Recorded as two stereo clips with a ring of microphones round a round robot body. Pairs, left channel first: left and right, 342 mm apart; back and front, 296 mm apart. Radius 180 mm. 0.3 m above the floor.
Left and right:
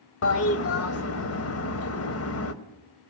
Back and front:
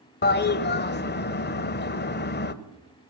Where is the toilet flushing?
130° left, 1.3 m.